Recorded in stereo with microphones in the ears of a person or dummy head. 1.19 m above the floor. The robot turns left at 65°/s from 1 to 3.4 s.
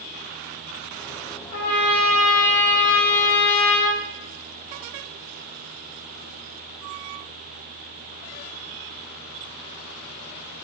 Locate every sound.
1.5 s a trumpet: 150° left, 1.4 m; by 4.0 s 25° left, 1.4 m